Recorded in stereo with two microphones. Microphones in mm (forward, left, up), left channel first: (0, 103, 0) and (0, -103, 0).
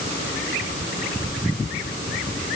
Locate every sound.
Only background noise.